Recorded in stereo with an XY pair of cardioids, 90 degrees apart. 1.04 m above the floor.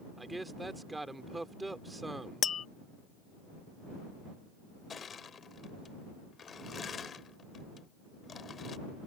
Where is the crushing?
55° left.